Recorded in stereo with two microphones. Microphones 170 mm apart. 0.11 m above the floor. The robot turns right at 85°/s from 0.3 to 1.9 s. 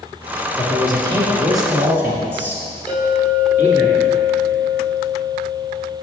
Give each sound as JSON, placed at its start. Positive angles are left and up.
{"t": 0.6, "sound": "a man speaking", "side_deg": -15, "distance_m": 1.6}
{"t": 2.9, "sound": "a clink", "side_deg": 5, "distance_m": 2.0}